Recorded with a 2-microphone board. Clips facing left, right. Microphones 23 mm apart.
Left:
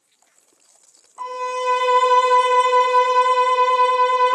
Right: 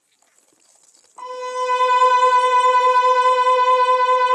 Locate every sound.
1.2 s a violin: 5° left (ahead or behind), 1.3 m